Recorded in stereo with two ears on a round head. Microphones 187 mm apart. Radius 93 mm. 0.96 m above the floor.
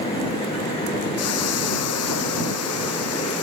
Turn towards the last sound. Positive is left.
turn(degrees=85)